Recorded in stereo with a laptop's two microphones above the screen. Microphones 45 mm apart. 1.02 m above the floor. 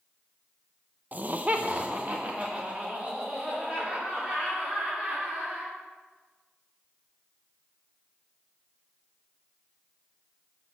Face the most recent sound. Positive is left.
turn(degrees=-20)  # may be behind; listen again after turning